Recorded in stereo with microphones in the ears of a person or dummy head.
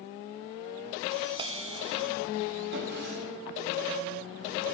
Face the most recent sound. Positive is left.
turn(degrees=-55)  # may be behind; listen again after turning